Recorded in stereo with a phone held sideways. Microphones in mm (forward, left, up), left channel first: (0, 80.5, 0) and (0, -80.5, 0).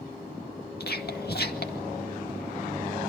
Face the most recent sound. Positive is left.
turn(degrees=80)